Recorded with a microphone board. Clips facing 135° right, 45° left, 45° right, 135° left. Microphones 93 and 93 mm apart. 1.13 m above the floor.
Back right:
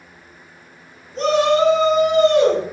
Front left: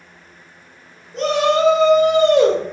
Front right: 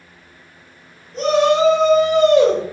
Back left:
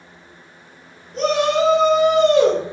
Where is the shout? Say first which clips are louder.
Back right 1 dB, front right 3 dB; 45° left, 1.4 m; by 2.6 s 75° left, 1.6 m.